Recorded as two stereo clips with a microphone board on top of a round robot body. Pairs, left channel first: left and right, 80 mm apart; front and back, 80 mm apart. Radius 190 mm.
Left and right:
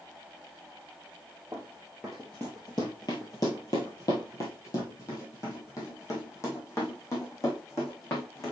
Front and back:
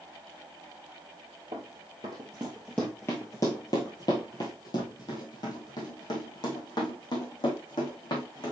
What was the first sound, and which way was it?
Running footsteps, 160° right.